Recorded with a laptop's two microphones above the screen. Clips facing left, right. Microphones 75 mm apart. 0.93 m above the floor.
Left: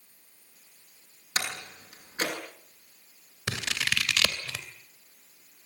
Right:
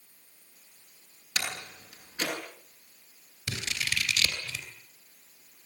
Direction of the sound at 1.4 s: 35° left (ahead or behind).